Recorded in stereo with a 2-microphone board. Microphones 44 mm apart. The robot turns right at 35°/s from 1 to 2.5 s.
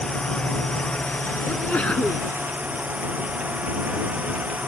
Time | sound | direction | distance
0.0 | a drone | 160° left | ?
1.5 | a sneeze | 40° left (ahead or behind) | ?